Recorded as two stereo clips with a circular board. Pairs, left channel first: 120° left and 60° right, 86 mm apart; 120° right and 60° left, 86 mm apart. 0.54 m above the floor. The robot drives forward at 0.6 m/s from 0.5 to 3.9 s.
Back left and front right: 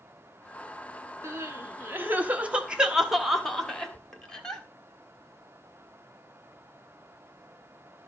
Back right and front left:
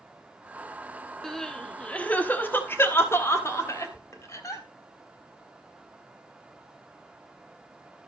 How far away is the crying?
About 1.3 m.